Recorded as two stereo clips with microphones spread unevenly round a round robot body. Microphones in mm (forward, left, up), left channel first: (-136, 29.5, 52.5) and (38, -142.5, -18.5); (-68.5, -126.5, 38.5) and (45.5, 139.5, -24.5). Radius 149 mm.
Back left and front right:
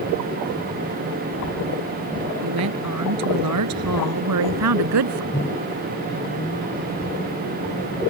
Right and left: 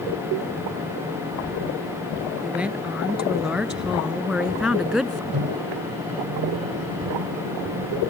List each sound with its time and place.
2.4 s a woman speaking: 20° right
5.3 s a microwave: 75° left